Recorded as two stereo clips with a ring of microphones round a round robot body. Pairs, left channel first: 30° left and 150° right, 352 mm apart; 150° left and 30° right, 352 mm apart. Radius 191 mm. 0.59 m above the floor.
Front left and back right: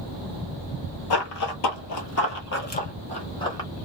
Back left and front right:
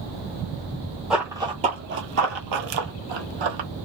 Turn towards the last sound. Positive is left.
turn(degrees=-50)